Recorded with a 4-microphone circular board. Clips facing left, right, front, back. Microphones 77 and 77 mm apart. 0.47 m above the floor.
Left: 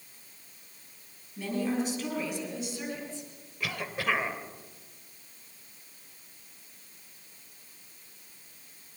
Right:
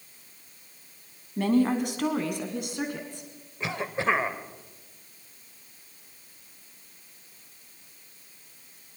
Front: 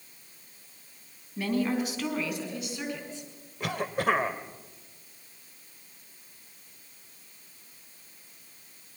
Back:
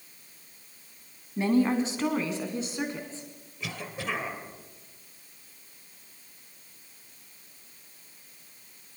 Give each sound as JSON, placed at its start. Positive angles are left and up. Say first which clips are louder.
{"t": 1.4, "sound": "a woman speaking", "louder": "right 7 dB, back 4 dB", "azimuth_deg": -115, "distance_m": 3.5}
{"t": 3.6, "sound": "a cough", "louder": "right 4 dB, front 8 dB", "azimuth_deg": -30, "distance_m": 1.7}